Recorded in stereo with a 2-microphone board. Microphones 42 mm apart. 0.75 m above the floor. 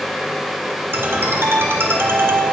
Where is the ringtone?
80° right, 1.8 m.